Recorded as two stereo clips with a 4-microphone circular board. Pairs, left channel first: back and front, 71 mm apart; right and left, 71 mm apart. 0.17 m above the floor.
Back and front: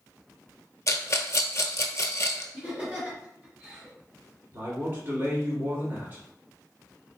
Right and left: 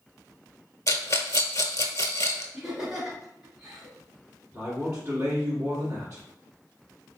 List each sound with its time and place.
0.9 s a rattle: 135° right, 0.6 m
2.5 s laughter: 25° left, 1.4 m
4.5 s a man speaking: 30° left, 1.5 m